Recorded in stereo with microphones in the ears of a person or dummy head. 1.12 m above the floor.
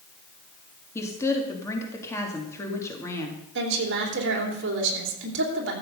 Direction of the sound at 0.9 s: 15° left (ahead or behind).